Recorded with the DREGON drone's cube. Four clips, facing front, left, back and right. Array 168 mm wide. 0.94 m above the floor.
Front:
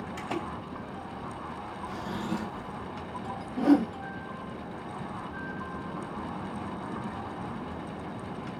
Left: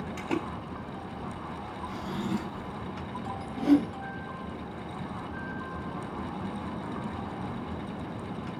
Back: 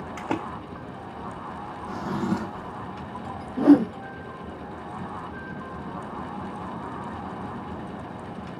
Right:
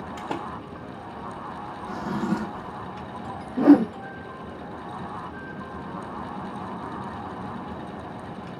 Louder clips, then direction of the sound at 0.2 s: Left 1 dB, back 6 dB; 160° right.